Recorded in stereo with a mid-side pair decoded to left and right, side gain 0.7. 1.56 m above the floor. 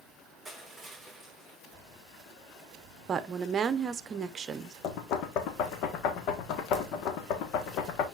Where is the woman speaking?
30° right, 1.0 m.